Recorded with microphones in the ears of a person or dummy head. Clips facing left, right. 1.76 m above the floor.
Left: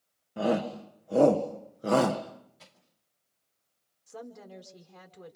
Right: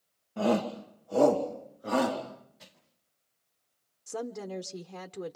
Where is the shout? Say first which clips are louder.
Right 1 dB; 10° left (ahead or behind), 1.6 m; by 2.2 s 65° left (ahead or behind), 1.6 m.